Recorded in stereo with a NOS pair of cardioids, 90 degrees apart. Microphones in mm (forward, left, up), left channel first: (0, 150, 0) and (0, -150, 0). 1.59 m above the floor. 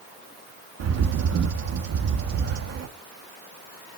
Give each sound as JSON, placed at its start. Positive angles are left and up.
{"t": 0.8, "sound": "a bird", "azimuth_deg": -60, "distance_m": 2.0}